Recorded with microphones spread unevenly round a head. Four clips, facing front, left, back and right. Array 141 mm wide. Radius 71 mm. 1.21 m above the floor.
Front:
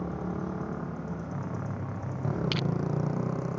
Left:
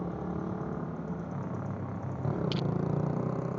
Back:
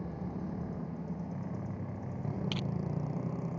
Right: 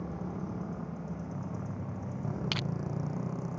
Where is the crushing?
95° right.